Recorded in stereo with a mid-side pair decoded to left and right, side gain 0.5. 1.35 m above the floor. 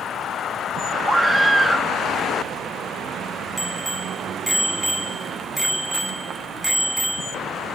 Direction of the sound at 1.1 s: 20° right.